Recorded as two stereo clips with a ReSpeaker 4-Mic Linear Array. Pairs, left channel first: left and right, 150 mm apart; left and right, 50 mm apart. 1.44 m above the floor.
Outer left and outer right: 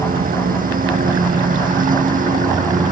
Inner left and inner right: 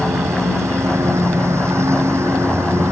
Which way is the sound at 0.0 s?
65° right (ahead or behind).